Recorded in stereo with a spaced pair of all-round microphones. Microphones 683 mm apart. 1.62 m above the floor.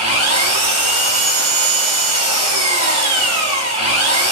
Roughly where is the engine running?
Right.